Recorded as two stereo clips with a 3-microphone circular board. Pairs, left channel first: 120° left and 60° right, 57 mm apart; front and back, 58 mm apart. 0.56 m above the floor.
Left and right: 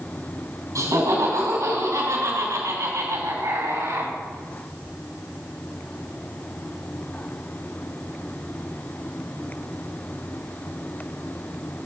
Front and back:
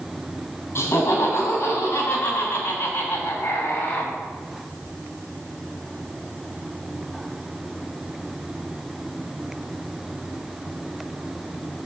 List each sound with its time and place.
0.8 s laughter: 45° right, 4.5 m; by 4.1 s 60° right, 3 m